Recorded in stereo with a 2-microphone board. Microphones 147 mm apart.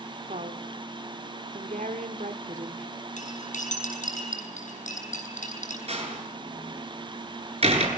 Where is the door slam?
50° right (ahead or behind), 8 m.